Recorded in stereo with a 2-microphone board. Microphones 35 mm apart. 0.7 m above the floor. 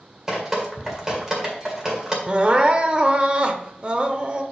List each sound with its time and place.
0.3 s dripping: 15° right (ahead or behind), 1.9 m
2.3 s crying: 30° right (ahead or behind), 0.7 m